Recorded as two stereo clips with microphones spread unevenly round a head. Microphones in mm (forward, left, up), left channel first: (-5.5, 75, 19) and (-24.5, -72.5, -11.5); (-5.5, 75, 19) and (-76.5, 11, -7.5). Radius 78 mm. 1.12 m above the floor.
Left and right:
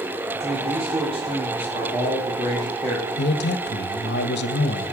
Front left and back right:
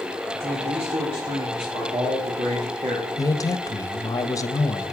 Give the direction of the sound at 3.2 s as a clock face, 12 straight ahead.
9 o'clock.